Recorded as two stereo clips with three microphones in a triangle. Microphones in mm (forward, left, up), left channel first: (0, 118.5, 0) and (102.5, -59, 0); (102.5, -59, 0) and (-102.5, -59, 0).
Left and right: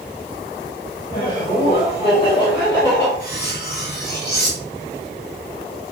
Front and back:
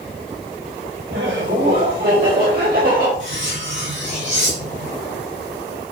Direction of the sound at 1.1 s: 170° left.